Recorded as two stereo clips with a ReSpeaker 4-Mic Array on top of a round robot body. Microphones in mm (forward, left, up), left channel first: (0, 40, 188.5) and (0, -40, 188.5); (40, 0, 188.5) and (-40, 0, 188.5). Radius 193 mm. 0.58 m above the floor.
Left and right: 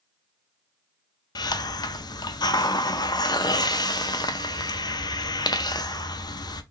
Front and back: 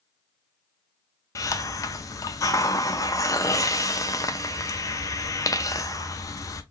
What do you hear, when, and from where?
1.4 s a hiss: 50° left, 0.6 m